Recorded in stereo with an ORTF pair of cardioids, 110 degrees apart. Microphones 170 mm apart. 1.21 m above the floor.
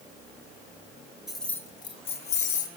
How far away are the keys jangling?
About 0.6 m.